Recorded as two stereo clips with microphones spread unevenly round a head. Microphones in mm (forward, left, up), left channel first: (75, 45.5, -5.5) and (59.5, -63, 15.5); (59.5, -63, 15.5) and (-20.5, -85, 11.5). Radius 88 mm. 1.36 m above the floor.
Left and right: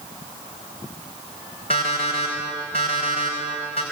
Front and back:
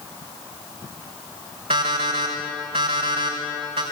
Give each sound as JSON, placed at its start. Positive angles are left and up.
{"t": 1.7, "sound": "an alarm clock", "azimuth_deg": 145, "distance_m": 4.0}